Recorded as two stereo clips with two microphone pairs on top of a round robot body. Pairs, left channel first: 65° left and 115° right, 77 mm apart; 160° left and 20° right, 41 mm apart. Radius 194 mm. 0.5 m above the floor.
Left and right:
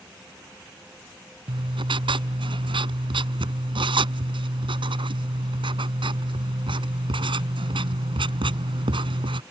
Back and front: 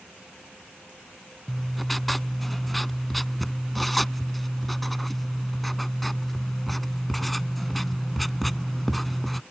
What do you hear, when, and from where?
1.5 s writing: 110° right